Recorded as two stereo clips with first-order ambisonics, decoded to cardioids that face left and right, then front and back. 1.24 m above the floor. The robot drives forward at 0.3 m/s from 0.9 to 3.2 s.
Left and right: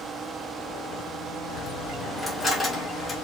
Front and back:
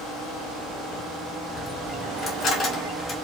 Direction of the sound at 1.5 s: 15° left.